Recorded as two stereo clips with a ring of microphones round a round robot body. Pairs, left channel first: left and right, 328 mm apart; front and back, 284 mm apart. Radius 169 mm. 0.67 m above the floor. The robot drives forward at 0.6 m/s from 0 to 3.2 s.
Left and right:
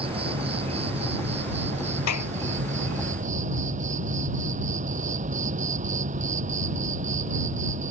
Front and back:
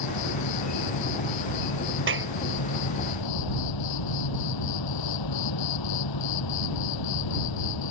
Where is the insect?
15° right; by 7.9 s 20° right.